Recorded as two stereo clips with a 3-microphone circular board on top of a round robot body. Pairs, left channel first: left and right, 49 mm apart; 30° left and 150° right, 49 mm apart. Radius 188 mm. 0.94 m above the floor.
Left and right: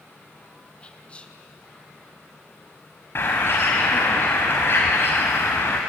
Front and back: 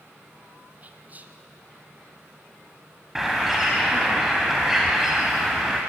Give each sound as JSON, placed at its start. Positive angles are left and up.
{"t": 0.8, "sound": "whispering", "azimuth_deg": 155, "distance_m": 1.9}
{"t": 3.1, "sound": "a bird", "azimuth_deg": 125, "distance_m": 0.9}